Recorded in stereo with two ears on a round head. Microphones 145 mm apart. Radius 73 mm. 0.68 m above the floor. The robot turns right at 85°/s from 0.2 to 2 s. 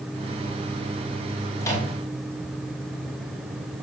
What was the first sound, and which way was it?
A microwave, 15° left (ahead or behind).